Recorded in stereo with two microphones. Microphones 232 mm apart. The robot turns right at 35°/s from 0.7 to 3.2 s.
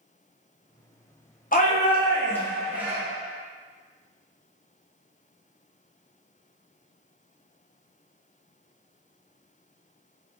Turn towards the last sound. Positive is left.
turn(degrees=-160)